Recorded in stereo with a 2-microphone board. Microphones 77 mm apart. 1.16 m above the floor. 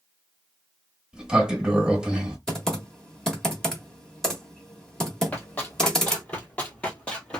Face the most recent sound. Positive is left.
turn(degrees=15)  # may be behind; listen again after turning